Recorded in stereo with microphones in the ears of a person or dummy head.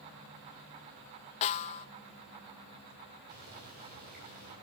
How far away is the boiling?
About 8.5 m.